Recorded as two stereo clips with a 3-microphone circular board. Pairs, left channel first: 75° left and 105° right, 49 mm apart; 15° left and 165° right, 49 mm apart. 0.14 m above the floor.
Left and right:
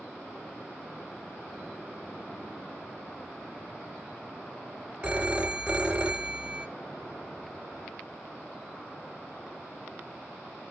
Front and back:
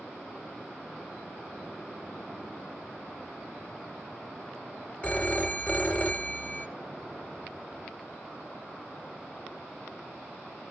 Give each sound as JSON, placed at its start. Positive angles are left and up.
{"t": 5.0, "sound": "a phone ringing", "azimuth_deg": -40, "distance_m": 1.5}